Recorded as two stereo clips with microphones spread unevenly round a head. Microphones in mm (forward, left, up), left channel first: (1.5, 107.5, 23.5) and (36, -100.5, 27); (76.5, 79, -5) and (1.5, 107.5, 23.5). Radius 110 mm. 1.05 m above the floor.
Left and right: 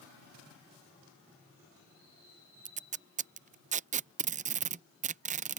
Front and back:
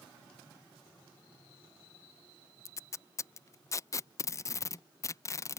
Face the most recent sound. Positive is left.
turn(degrees=-30)